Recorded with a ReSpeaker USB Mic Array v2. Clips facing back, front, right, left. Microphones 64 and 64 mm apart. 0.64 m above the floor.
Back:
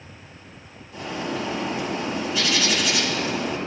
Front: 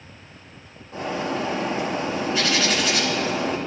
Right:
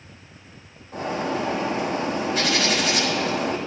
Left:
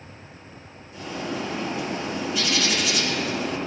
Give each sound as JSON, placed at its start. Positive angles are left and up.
{"t": 0.9, "sound": "a bird", "azimuth_deg": -50, "distance_m": 3.0}